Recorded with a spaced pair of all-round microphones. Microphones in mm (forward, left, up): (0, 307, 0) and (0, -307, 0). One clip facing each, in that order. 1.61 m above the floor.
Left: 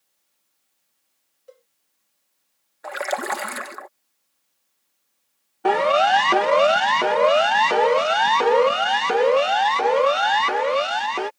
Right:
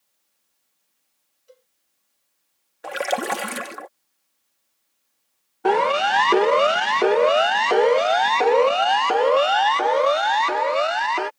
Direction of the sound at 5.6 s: 5° left (ahead or behind).